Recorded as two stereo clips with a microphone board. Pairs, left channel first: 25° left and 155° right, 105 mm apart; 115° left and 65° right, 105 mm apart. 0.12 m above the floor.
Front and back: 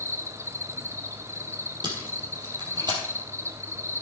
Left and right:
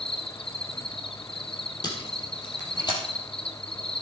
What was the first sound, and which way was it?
An insect, 140° left.